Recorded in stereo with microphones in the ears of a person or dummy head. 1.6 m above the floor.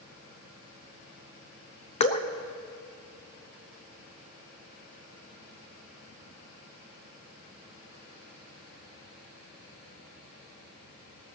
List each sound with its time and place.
2.0 s dripping: 35° left (ahead or behind), 0.7 m